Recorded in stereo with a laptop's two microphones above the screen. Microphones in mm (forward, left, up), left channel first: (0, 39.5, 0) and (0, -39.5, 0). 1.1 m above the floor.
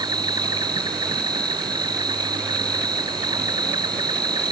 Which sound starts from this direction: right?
An insect, at 0.0 s.